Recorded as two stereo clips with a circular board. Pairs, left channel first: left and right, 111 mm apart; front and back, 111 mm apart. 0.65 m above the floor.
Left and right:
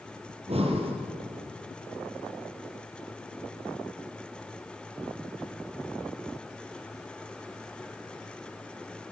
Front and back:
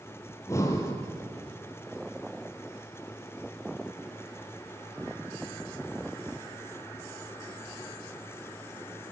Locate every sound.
0.3 s breathing: 60° right, 3 m